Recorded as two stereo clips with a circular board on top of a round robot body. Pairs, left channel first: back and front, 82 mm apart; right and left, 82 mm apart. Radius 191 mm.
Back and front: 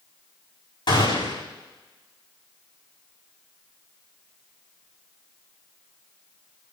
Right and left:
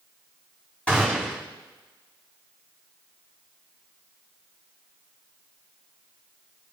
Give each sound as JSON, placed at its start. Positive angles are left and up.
{"t": 0.9, "sound": "a gunshot", "azimuth_deg": -165, "distance_m": 5.0}